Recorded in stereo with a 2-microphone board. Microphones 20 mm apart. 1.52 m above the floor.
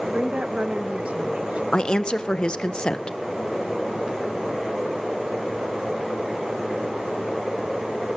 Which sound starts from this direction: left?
A woman speaking, at 1.7 s.